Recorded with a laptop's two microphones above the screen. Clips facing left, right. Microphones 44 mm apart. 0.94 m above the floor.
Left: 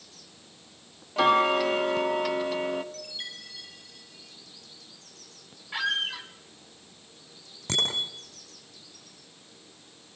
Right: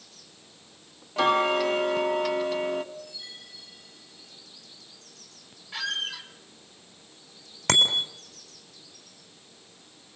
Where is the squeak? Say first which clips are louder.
Left 3 dB; 20° left (ahead or behind), 3 m.